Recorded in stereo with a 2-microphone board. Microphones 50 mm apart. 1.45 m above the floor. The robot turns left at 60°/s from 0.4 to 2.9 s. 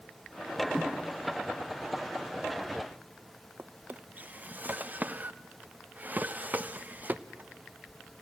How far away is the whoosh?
About 1.5 m.